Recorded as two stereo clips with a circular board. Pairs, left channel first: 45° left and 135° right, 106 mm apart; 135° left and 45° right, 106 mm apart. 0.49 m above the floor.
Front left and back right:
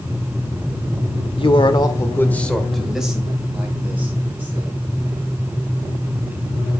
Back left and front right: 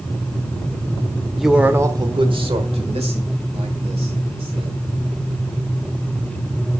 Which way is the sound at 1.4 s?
45° left.